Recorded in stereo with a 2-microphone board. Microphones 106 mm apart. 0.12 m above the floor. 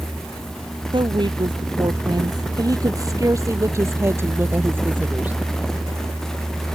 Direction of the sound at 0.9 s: 50° right (ahead or behind).